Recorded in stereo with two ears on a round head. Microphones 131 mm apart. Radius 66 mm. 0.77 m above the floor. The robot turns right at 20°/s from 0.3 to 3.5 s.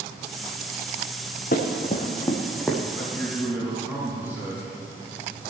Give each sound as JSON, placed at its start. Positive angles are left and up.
{"t": 1.5, "sound": "running footsteps", "side_deg": 60, "distance_m": 3.0}
{"t": 2.9, "sound": "a man speaking", "side_deg": -5, "distance_m": 5.5}